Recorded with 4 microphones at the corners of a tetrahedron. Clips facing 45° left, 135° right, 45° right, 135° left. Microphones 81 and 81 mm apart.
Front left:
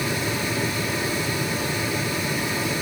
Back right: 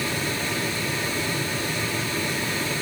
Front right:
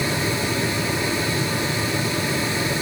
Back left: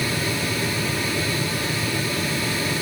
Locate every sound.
Only background noise.